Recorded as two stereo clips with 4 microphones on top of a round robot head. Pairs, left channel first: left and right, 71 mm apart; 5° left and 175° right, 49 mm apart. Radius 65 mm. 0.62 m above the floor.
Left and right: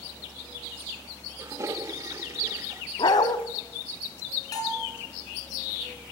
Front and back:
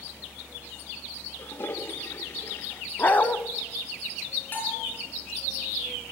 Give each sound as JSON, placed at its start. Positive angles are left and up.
{"t": 1.4, "sound": "a toilet flushing", "azimuth_deg": -40, "distance_m": 1.3}
{"t": 3.0, "sound": "a dog barking", "azimuth_deg": 60, "distance_m": 1.7}
{"t": 4.5, "sound": "a bell", "azimuth_deg": 55, "distance_m": 8.5}